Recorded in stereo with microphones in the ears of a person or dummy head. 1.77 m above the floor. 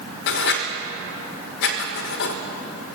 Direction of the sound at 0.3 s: 60° left (ahead or behind).